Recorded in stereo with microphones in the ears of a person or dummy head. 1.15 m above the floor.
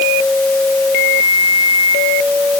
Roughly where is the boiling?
I don't hear boiling.